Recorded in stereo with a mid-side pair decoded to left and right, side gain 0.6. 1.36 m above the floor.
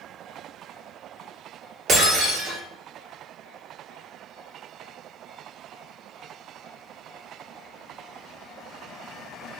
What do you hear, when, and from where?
1.9 s breaking glass: 45° right, 1.9 m